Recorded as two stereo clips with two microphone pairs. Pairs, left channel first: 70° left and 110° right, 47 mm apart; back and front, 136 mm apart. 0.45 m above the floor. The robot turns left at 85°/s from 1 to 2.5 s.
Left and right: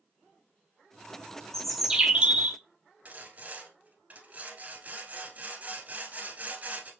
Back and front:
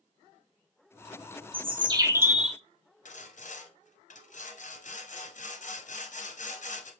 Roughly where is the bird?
Ahead.